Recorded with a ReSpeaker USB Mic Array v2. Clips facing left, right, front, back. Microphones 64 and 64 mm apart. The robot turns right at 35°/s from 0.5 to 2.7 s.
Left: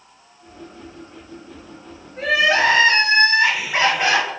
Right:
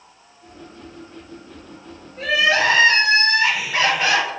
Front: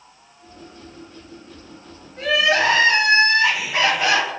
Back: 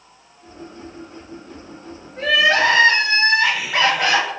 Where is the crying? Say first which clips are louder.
Left 1 dB, back 2 dB; 130° left, 2 m; by 4.3 s 145° left, 2 m.